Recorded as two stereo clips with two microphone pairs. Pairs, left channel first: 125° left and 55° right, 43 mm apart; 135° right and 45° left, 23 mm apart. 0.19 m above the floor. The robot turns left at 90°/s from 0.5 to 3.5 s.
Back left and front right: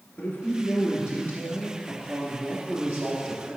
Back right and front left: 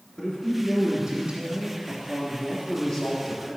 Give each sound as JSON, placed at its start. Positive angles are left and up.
{"t": 0.2, "sound": "a man speaking", "azimuth_deg": 170, "distance_m": 2.5}